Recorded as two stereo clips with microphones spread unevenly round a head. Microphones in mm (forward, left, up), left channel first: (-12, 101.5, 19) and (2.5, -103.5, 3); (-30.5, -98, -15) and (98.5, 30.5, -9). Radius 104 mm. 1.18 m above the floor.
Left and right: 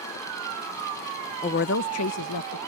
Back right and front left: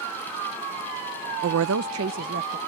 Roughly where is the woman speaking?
Ahead left.